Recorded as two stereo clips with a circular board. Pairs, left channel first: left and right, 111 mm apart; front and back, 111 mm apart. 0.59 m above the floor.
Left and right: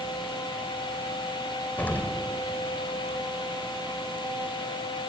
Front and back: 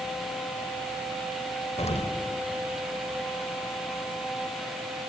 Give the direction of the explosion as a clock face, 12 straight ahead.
11 o'clock.